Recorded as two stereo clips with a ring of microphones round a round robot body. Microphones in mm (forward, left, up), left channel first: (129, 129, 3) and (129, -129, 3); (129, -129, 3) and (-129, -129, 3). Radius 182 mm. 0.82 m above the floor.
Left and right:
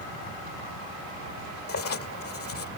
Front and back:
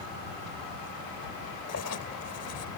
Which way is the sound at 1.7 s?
55° left.